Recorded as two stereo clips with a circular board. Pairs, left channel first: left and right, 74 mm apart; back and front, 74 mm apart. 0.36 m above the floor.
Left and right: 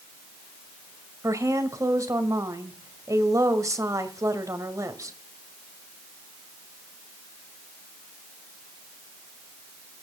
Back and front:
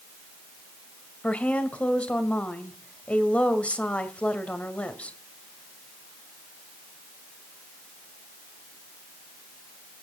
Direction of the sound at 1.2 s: 110° right.